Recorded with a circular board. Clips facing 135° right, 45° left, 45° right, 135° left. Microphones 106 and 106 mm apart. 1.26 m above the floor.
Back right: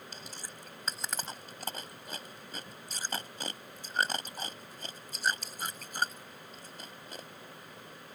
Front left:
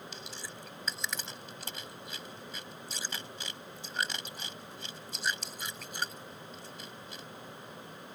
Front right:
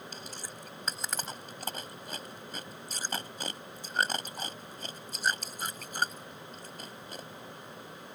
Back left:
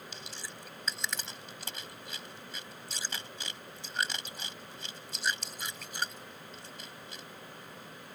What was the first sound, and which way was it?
Chewing, 90° right.